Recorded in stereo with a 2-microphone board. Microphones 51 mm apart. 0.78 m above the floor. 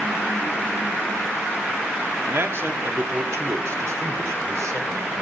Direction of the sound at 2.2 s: 50° right (ahead or behind).